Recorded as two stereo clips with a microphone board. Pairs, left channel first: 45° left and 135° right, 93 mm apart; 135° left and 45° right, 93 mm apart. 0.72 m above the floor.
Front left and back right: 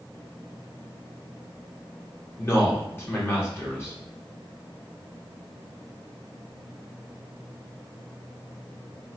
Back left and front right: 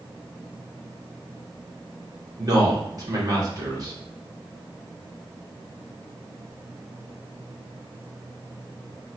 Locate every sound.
2.4 s a man speaking: 10° right, 1.3 m